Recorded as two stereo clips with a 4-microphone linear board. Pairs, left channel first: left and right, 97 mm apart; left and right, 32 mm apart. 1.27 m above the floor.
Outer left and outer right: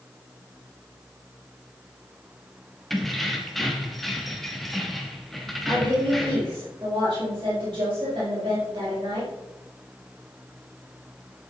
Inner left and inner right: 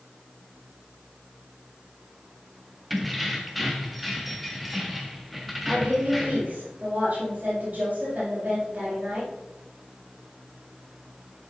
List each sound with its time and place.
2.9 s keys jangling: centre (ahead or behind), 1.4 m
5.7 s a woman speaking: 45° right (ahead or behind), 4.5 m